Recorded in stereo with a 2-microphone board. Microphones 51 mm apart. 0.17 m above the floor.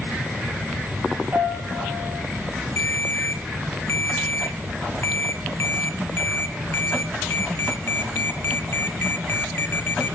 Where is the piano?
55° right (ahead or behind), 5.5 m.